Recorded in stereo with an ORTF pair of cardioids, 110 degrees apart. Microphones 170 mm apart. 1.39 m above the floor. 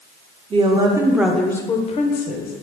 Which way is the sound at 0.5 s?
30° right.